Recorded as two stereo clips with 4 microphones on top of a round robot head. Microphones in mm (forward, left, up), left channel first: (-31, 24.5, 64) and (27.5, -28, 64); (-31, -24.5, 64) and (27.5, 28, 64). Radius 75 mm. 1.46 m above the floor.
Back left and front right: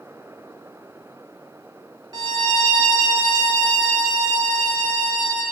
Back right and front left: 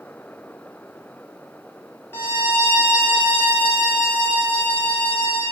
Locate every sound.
2.1 s a violin: 80° right, 0.8 m